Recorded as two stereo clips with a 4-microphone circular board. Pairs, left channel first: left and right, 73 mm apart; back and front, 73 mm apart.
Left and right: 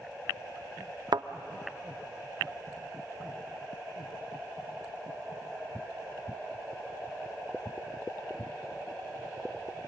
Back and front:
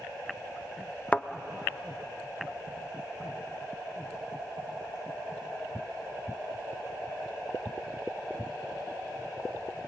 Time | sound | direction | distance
1.1 | a thud | 105° right | 0.5 m